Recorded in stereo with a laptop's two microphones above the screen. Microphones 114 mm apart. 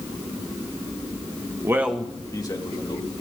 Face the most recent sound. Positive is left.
turn(degrees=55)  # may be behind; listen again after turning